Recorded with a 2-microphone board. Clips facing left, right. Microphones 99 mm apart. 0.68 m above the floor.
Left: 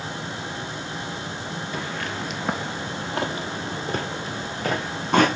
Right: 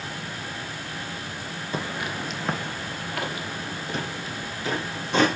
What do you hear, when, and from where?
1.7 s footsteps: 25° right (ahead or behind), 0.8 m; by 5.3 s 55° left (ahead or behind), 2 m